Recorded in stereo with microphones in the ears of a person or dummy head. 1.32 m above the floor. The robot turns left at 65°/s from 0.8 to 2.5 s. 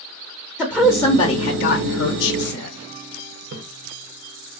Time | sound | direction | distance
0.6 | a woman speaking | straight behind | 0.5 m
3.5 | a splash | 55° right (ahead or behind) | 0.8 m